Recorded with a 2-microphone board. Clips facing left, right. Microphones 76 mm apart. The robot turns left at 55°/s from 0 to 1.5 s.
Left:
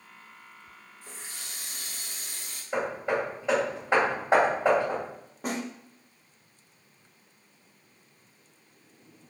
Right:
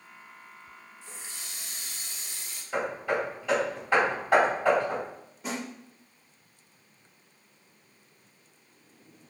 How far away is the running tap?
About 0.6 m.